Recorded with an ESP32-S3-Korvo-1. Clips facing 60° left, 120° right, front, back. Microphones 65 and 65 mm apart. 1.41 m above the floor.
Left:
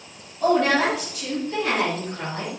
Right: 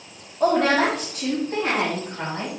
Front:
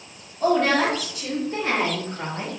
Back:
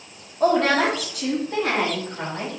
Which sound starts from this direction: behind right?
A woman speaking, at 0.4 s.